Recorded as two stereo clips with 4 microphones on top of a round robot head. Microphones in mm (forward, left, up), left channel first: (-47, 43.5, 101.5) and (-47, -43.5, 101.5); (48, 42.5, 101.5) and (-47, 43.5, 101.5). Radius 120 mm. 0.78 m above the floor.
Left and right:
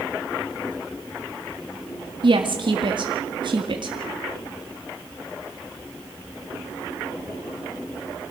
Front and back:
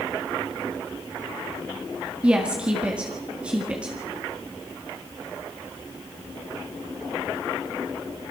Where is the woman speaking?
105° right, 1.9 m.